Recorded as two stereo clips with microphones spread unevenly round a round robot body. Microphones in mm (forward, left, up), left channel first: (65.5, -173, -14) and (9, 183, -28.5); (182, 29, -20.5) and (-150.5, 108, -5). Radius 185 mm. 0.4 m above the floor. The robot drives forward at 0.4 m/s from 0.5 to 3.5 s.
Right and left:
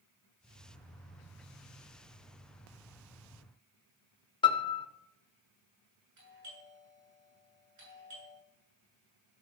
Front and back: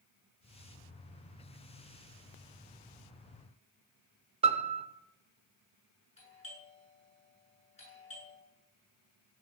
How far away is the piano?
About 0.7 m.